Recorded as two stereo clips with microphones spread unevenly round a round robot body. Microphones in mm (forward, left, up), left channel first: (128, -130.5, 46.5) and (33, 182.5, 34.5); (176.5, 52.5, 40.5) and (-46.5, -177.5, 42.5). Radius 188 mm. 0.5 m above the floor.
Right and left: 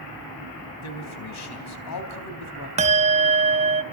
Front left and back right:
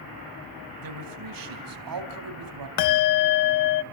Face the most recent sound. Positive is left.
turn(degrees=35)